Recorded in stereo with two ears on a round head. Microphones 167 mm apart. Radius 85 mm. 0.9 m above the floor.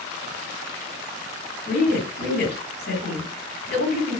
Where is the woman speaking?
55° left (ahead or behind), 1.8 m.